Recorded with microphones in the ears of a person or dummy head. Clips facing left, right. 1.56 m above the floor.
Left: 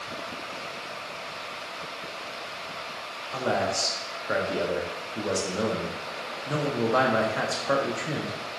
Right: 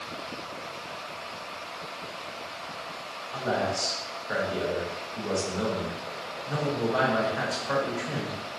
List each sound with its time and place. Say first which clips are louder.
3.3 s a man speaking: left 2 dB; 50° left (ahead or behind), 1.0 m